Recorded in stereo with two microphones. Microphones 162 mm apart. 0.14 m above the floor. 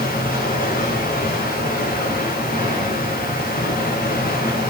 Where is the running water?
70° left (ahead or behind), 6.5 m.